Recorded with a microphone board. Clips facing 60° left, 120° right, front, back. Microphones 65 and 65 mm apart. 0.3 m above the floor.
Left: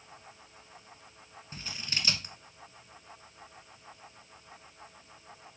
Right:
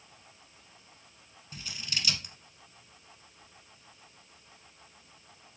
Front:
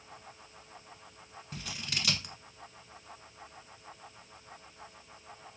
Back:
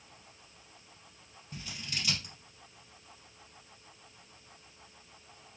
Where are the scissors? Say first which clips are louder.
Even, front 2 dB; 5° left, 0.7 m.